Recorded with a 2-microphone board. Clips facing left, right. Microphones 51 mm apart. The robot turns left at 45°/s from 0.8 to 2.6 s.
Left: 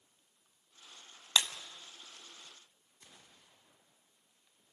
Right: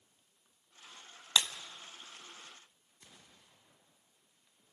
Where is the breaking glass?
15° left (ahead or behind), 1.8 m; by 1.5 s 20° left (ahead or behind), 1.8 m.